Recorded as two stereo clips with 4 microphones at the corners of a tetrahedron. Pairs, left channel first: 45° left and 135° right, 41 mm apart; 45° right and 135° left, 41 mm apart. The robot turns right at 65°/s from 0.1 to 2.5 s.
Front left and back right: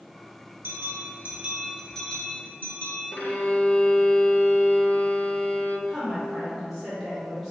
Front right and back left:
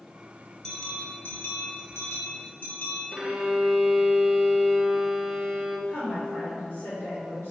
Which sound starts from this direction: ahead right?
A woman speaking, at 5.9 s.